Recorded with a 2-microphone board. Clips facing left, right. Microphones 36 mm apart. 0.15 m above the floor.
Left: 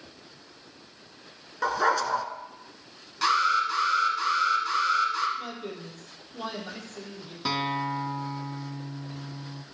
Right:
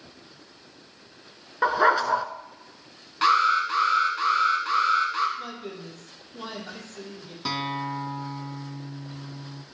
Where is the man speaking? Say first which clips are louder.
Even; 5° left (ahead or behind), 3.5 m.